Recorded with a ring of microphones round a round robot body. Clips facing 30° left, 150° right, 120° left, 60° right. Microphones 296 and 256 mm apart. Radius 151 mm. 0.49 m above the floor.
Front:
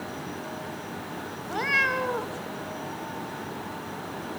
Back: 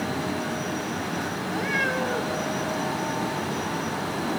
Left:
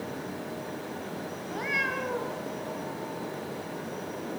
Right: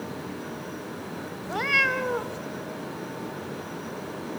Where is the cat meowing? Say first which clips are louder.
Back 2 dB, right 6 dB; 45° right, 1.5 m.